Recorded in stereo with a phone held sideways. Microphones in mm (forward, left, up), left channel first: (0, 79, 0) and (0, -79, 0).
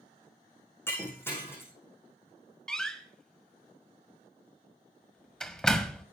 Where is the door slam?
5° left (ahead or behind), 1.4 m.